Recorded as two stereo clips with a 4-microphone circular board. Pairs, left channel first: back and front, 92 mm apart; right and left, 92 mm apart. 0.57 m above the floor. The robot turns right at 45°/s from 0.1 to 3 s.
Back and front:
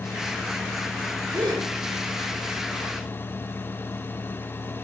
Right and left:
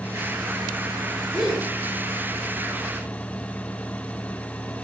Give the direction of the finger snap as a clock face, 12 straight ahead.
I don't hear a finger snap.